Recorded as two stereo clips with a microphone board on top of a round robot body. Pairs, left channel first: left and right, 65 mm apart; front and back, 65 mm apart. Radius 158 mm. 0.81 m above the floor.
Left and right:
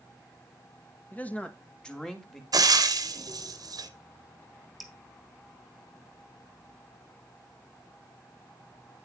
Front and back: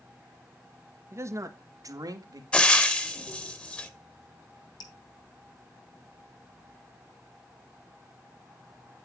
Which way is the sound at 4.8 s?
Straight ahead.